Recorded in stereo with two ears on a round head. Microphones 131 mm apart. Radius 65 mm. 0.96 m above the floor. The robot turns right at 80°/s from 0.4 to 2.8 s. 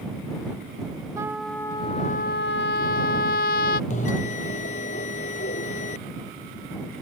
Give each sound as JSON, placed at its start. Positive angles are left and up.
{"t": 1.2, "sound": "a trumpet", "azimuth_deg": -20}
{"t": 3.9, "sound": "a bell", "side_deg": 55}